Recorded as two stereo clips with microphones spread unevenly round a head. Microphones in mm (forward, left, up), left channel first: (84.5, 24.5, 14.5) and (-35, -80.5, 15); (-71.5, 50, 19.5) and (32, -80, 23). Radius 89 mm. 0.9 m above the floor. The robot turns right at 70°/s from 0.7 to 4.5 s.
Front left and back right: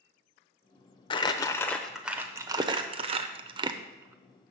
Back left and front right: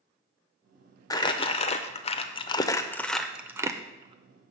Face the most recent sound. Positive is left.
turn(degrees=-50)